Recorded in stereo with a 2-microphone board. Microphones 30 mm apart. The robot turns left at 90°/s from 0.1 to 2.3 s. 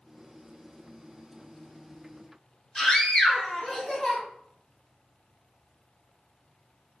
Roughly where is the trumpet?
No trumpet in this recording.